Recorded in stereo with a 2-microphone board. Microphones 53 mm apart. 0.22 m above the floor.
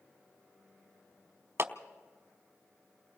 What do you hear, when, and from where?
1.6 s a clap: 45° right (ahead or behind), 1.0 m